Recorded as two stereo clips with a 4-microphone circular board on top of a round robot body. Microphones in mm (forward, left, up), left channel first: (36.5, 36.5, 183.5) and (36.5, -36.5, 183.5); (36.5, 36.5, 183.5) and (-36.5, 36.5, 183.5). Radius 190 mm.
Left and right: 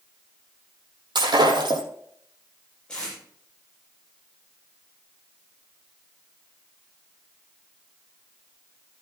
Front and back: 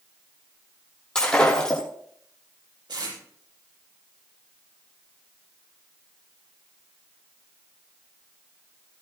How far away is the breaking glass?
About 5.5 m.